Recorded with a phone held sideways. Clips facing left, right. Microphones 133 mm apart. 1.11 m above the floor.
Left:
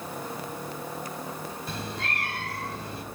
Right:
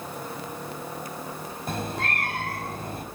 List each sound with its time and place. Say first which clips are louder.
1.7 s a cat meowing: right 7 dB; 50° right (ahead or behind), 4.5 m